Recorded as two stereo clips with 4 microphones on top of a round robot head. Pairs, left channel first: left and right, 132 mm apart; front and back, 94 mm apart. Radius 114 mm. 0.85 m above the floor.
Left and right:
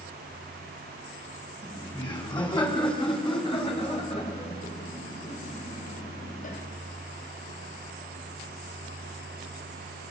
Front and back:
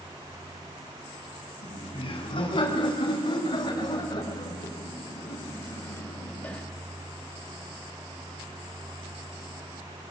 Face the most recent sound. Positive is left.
turn(degrees=75)